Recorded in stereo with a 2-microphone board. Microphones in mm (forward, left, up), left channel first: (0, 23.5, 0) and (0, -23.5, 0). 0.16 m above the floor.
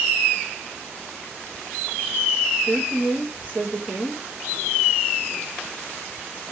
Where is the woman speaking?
20° right (ahead or behind), 6.5 m.